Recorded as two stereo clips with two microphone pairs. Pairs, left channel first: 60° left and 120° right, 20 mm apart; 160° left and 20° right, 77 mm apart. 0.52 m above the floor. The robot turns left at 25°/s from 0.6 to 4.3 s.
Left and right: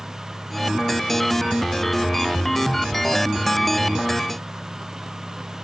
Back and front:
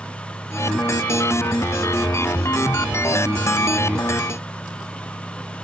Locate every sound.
Only background noise.